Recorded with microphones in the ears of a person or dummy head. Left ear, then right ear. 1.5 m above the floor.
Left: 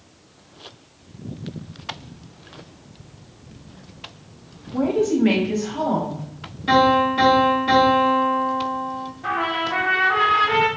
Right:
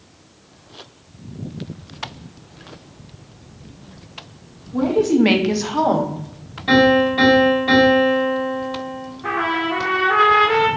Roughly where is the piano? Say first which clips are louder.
Right 2 dB; centre.